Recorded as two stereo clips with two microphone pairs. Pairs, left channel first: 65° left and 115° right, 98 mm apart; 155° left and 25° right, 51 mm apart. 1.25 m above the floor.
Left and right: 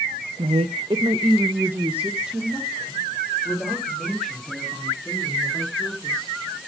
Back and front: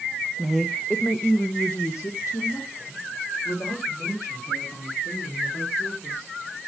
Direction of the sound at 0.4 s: 105° right.